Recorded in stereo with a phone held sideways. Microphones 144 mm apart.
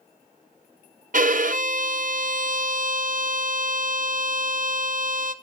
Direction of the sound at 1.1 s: 65° right (ahead or behind).